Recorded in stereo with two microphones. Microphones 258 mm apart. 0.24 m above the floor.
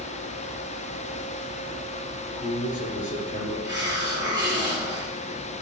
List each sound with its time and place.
2.2 s a man speaking: 30° left (ahead or behind), 5 m
3.6 s a hiss: 15° right (ahead or behind), 3.5 m